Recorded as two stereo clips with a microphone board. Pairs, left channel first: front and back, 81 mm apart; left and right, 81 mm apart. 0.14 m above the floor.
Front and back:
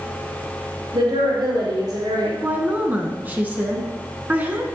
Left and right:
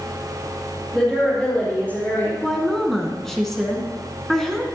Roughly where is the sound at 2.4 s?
Behind.